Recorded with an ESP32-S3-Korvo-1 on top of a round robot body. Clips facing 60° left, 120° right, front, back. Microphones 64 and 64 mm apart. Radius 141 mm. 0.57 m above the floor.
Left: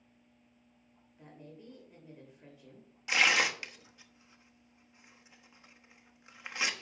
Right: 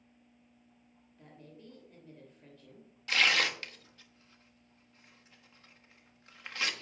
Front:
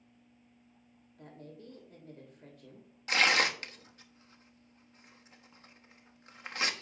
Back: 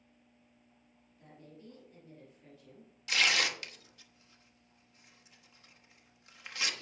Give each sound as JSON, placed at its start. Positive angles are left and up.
{"t": 1.2, "sound": "a woman speaking", "azimuth_deg": -15, "distance_m": 3.0}
{"t": 3.1, "sound": "tearing paper", "azimuth_deg": -5, "distance_m": 1.2}